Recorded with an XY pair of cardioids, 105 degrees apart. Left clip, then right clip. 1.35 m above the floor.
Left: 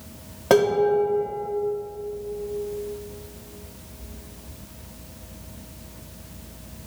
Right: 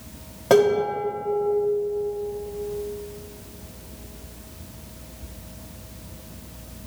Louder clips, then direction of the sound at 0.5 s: Even; 15° left.